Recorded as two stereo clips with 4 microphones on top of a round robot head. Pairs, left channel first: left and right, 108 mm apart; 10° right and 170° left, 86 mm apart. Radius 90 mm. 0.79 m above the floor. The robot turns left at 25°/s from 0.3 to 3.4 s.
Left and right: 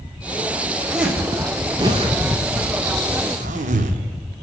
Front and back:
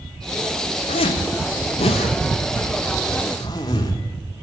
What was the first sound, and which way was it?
A zipper, 5° right.